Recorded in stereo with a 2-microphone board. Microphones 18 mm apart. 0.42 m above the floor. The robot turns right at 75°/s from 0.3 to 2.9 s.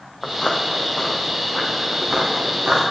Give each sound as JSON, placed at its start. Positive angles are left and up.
{"t": 0.2, "sound": "footsteps", "side_deg": 80, "distance_m": 1.6}